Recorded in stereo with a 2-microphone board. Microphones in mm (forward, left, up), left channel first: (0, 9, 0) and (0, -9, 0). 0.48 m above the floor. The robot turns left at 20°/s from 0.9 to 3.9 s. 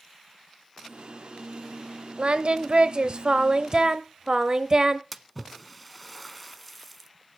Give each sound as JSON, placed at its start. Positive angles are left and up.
{"t": 2.2, "sound": "singing", "azimuth_deg": -105, "distance_m": 0.9}
{"t": 5.1, "sound": "a splash", "side_deg": 0, "distance_m": 0.7}